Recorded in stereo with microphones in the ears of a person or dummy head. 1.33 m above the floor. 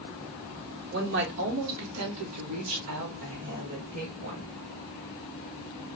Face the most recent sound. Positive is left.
turn(degrees=-50)  # may be behind; listen again after turning